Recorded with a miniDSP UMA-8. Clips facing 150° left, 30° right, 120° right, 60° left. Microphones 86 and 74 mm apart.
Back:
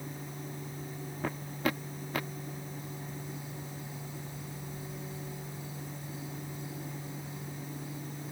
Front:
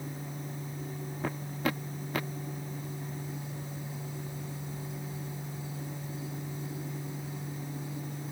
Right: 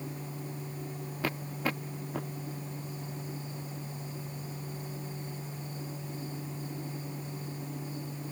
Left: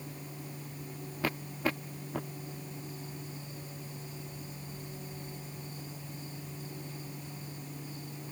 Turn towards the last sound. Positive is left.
No sound to turn to.